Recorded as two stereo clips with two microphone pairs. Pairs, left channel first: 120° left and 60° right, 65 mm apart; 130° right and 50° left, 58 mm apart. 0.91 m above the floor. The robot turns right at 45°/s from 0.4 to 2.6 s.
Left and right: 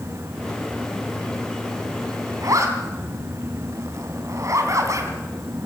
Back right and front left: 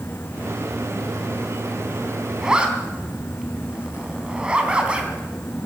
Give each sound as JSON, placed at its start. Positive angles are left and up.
{"t": 2.4, "sound": "a zipper", "azimuth_deg": -30, "distance_m": 3.0}